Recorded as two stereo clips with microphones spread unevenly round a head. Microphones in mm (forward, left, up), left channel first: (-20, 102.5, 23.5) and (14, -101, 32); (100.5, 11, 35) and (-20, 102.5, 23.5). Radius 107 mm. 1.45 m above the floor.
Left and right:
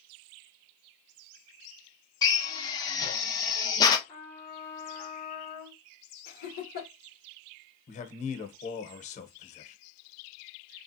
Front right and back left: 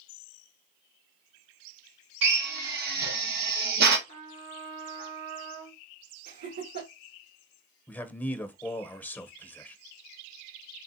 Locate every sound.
2.2 s a drill: 170° left, 1.1 m
4.1 s a trumpet: straight behind, 3 m
6.2 s laughter: 150° left, 3 m
7.9 s a man speaking: 40° left, 0.9 m